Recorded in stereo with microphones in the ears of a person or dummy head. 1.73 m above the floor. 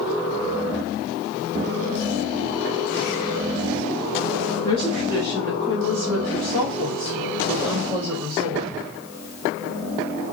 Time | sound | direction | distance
4.7 | a woman speaking | 20° left (ahead or behind) | 0.7 m